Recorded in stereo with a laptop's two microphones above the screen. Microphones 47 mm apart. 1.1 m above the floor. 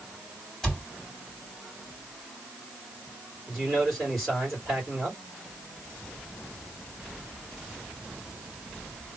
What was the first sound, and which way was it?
A cupboard door, centre (ahead or behind).